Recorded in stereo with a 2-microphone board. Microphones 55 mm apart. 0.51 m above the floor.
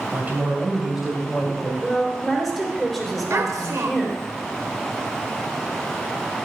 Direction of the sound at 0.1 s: 30° right (ahead or behind).